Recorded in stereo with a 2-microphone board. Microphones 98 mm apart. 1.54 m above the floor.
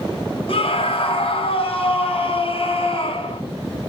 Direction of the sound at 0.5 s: 70° left (ahead or behind).